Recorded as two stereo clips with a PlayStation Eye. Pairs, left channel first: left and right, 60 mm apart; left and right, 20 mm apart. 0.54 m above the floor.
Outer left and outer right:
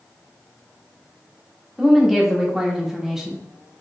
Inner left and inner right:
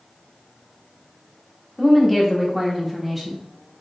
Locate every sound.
1.8 s a woman speaking: 5° right (ahead or behind), 1.3 m